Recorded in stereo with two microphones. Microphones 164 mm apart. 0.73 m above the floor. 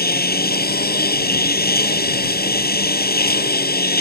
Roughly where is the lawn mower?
Left.